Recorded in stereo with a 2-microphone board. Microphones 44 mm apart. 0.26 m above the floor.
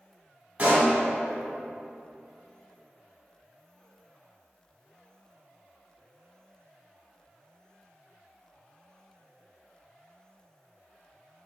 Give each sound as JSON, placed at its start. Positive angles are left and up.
{"t": 0.6, "sound": "a pop", "side_deg": -35, "distance_m": 1.4}